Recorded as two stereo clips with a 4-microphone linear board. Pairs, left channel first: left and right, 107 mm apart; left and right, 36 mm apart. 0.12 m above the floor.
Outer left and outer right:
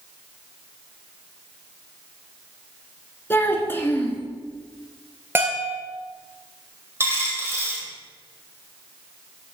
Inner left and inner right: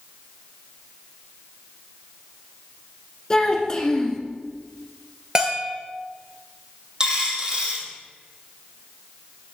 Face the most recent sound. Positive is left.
turn(degrees=-25)  # may be behind; listen again after turning